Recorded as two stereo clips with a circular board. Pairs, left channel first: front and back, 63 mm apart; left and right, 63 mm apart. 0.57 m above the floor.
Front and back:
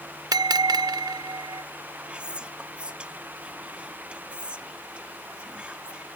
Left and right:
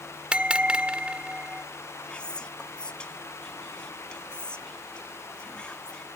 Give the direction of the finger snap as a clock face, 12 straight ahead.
No finger snap in this recording.